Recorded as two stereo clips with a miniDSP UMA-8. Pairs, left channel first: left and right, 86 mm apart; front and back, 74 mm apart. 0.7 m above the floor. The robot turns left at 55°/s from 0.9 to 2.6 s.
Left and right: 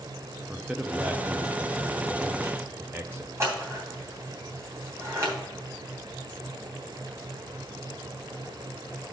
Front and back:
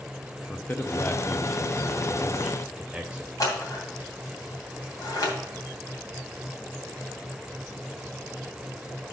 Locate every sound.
0.5 s a man speaking: 25° right, 0.6 m; by 3.3 s 115° right, 0.6 m
3.4 s scissors: 35° right, 2.5 m